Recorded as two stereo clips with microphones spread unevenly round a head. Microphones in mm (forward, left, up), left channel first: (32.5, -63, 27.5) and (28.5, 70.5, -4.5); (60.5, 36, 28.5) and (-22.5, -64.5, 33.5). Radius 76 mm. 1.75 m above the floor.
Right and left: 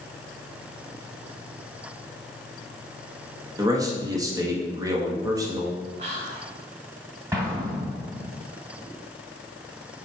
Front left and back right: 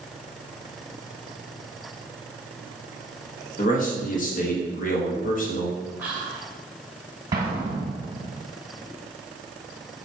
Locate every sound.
3.6 s a man speaking: 25° left, 1.5 m
6.0 s whispering: 150° left, 1.3 m
7.3 s an explosion: 175° left, 1.3 m